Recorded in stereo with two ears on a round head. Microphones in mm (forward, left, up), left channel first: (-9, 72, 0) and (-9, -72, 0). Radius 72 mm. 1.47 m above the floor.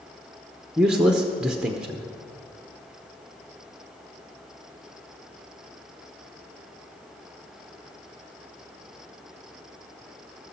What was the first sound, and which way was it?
A man speaking, 5° right (ahead or behind).